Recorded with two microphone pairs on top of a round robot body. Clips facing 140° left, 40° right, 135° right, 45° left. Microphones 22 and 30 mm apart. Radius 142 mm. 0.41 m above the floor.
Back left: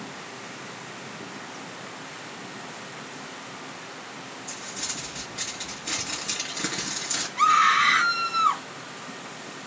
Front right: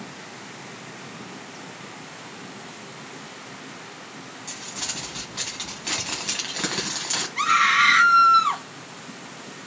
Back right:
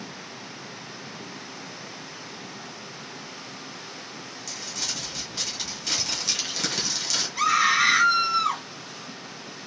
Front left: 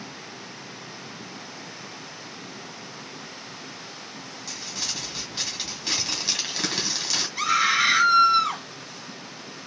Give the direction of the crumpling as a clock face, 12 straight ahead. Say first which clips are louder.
Front right 3 dB, even; 1 o'clock.